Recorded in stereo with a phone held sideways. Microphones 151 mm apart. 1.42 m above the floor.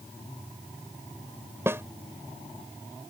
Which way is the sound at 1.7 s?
15° right (ahead or behind).